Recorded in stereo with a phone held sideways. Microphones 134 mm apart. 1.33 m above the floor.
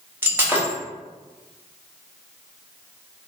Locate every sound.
0.2 s breaking glass: 15° right (ahead or behind), 0.8 m